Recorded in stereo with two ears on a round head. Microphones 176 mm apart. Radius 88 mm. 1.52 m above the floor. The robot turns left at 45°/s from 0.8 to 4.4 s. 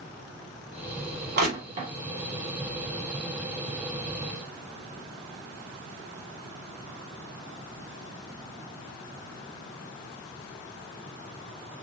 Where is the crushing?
55° right (ahead or behind), 2.5 m; by 1.9 s 35° right (ahead or behind), 2.5 m.